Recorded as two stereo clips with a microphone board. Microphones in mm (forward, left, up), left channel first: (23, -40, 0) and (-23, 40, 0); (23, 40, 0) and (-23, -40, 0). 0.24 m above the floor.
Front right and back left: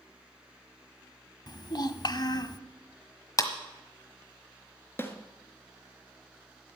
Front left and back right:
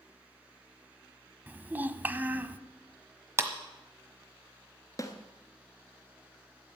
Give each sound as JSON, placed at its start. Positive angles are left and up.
{"t": 1.5, "sound": "a child speaking", "azimuth_deg": -60, "distance_m": 0.8}
{"t": 3.4, "sound": "a clap", "azimuth_deg": -80, "distance_m": 1.3}
{"t": 5.0, "sound": "a snare drum", "azimuth_deg": 5, "distance_m": 1.4}